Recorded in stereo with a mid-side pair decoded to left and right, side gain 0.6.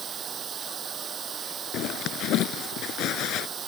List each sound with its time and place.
0.0 s running water: 40° right
1.7 s a zipper: 60° left